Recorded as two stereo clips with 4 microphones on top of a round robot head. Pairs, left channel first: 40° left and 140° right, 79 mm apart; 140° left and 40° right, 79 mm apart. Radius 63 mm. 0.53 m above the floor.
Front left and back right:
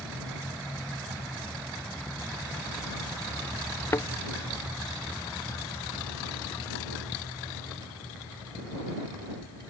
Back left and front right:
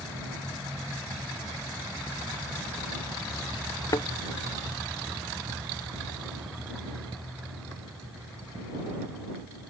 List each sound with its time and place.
3.9 s a thud: 95° left